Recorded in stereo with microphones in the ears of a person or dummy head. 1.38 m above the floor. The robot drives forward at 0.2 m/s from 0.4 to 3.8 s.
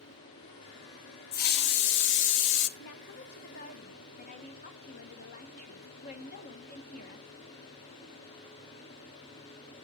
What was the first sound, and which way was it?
A hiss, 55° left (ahead or behind).